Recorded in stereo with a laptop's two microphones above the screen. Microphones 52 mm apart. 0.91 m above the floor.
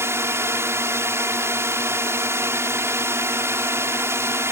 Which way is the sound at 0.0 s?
60° right (ahead or behind).